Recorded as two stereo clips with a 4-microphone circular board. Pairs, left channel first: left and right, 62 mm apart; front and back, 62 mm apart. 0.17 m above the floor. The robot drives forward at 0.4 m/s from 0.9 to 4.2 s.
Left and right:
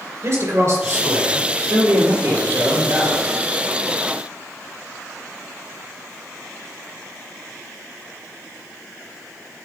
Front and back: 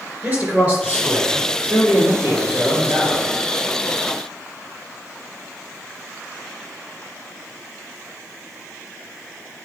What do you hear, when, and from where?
0.2 s a man speaking: 110° right, 2.5 m; by 3.3 s 130° right, 3 m